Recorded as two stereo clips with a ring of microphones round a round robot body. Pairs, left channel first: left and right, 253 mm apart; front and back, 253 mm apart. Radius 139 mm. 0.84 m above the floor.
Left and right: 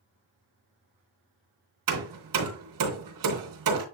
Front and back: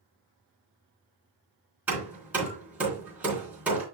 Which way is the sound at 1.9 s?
95° right.